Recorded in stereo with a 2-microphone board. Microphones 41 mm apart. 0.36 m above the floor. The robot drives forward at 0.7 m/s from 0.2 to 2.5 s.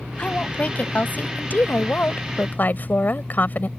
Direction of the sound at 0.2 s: 30° left (ahead or behind).